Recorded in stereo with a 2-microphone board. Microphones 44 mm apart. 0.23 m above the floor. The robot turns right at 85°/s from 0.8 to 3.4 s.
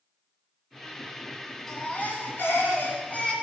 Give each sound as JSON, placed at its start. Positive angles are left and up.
{"t": 1.7, "sound": "a baby crying", "azimuth_deg": 10, "distance_m": 1.6}